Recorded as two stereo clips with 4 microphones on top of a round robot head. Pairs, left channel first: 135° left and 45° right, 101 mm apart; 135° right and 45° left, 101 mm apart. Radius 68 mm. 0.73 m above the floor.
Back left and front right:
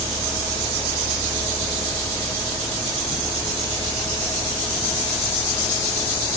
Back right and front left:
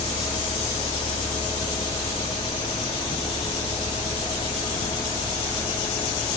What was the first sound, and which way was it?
Only background noise.